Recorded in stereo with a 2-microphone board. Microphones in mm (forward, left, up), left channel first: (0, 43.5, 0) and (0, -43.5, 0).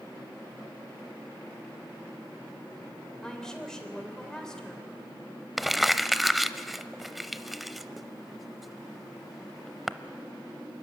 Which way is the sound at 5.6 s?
Centre (ahead or behind).